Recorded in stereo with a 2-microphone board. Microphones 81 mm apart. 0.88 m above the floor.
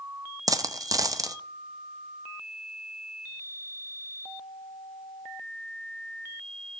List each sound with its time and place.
0.5 s a dropped coin: 50° right (ahead or behind), 0.6 m